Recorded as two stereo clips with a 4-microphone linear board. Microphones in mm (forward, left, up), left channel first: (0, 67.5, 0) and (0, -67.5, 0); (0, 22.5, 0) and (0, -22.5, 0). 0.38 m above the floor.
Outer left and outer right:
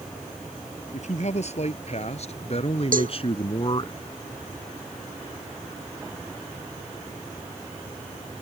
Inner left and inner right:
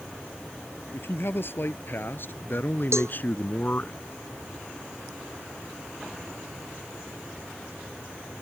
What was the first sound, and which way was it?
A man speaking, 55° left (ahead or behind).